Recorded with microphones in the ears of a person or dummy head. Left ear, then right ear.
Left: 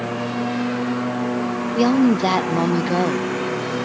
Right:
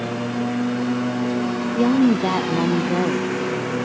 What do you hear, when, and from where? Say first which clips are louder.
0.0 s a lawn mower: left 1 dB; 20° left (ahead or behind); by 3.9 s 10° left (ahead or behind)
1.8 s a woman speaking: left 1 dB; 35° left (ahead or behind)